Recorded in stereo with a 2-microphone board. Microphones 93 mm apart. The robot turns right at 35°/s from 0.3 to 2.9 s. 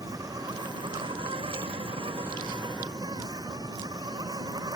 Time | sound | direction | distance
0.0 | an insect | 140° right | ?